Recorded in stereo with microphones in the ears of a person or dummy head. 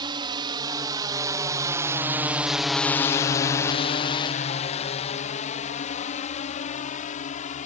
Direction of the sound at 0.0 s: 20° right (ahead or behind).